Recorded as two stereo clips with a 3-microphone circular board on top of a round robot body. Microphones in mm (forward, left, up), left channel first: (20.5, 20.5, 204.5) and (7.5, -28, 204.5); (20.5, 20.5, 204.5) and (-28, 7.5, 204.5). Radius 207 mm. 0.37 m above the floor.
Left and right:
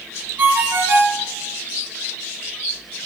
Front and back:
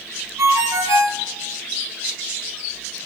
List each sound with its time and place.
0.4 s a ringtone: 150° right, 2.5 m